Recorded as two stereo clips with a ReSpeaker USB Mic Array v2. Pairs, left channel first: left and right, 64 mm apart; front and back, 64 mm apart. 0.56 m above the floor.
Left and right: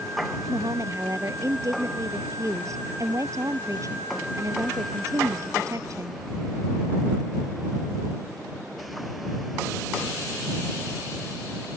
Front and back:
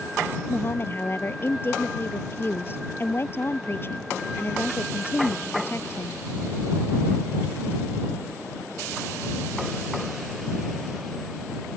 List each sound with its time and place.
0.5 s a woman speaking: 50° right